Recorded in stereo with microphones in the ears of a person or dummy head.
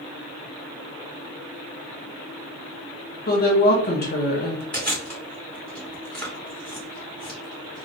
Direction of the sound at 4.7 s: 5° left (ahead or behind).